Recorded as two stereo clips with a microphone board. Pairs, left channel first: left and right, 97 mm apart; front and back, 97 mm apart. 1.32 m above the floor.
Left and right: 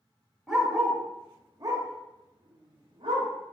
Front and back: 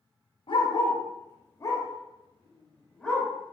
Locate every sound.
0.5 s a dog barking: straight ahead, 1.8 m; by 3.3 s 85° right, 2.5 m